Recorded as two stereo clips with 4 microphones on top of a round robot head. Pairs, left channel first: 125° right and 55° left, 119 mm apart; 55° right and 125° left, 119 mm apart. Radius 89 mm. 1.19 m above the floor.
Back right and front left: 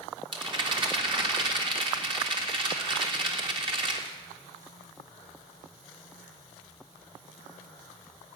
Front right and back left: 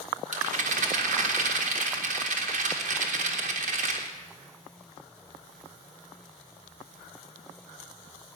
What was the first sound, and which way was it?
A rattle, 105° left.